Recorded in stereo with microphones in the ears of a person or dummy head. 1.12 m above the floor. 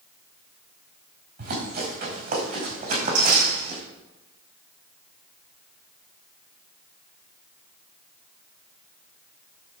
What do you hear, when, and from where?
1.4 s running footsteps: 60° right (ahead or behind), 5.5 m; by 3.8 s 50° right (ahead or behind), 3.5 m